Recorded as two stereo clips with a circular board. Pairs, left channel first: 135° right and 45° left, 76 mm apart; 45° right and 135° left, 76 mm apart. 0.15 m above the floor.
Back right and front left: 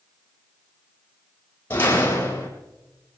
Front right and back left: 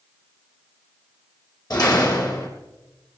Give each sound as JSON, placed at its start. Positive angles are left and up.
{"t": 1.7, "sound": "a door slam", "azimuth_deg": -75, "distance_m": 4.0}